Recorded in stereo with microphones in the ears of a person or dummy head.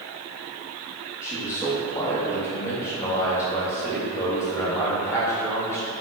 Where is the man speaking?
15° left (ahead or behind), 0.7 m.